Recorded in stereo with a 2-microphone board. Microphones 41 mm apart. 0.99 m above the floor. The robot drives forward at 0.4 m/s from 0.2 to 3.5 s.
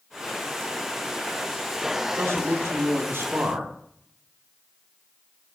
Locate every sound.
2.0 s a man speaking: 70° right (ahead or behind), 0.6 m; by 3.7 s 55° right (ahead or behind), 0.7 m